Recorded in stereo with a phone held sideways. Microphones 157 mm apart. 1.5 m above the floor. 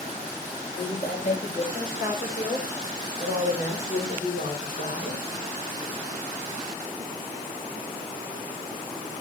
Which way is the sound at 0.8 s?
70° left (ahead or behind).